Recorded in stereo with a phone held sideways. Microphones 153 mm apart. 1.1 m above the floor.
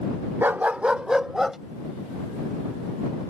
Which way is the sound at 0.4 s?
15° right (ahead or behind).